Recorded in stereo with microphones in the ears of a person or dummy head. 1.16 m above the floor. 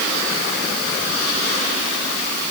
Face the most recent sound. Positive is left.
No sound to turn to.